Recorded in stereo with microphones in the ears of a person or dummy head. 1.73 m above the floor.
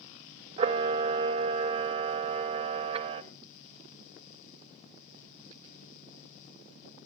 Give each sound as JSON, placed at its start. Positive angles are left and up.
{"t": 0.6, "sound": "a camera shutter", "side_deg": -30, "distance_m": 1.3}